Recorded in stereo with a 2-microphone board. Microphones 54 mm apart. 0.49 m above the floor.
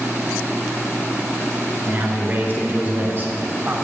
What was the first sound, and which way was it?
A man speaking, 35° right (ahead or behind).